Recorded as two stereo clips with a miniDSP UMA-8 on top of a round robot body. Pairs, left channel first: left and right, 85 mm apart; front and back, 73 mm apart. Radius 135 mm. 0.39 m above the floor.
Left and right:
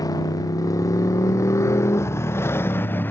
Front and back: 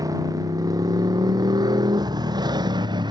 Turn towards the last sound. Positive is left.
turn(degrees=160)